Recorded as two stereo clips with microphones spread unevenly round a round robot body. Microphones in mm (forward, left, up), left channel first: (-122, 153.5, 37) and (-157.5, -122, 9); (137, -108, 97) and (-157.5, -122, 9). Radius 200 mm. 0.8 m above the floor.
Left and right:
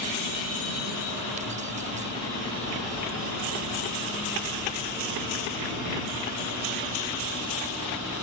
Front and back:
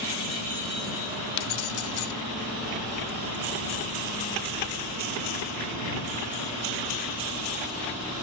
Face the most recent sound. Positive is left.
turn(degrees=-25)